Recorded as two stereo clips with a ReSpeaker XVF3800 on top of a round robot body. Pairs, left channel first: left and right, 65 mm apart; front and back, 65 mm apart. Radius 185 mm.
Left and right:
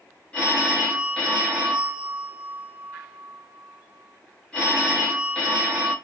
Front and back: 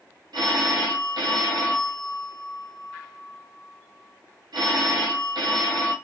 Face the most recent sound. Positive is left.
turn(degrees=165)